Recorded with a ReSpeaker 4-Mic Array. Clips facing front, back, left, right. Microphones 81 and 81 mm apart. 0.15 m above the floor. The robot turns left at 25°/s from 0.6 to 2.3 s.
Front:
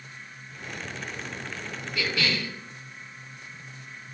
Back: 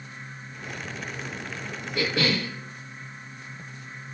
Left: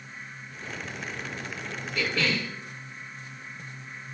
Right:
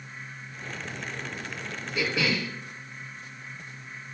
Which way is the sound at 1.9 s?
150° right.